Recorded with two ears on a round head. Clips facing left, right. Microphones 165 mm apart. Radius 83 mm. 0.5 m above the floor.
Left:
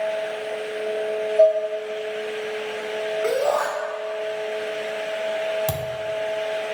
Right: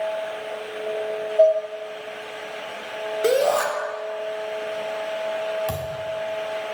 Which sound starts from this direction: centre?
Dishes clattering, at 1.4 s.